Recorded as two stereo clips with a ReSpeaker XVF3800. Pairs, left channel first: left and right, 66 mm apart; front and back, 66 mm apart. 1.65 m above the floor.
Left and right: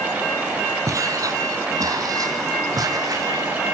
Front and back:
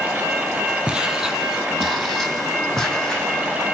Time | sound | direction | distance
0.9 | footsteps | 105° right | 3 m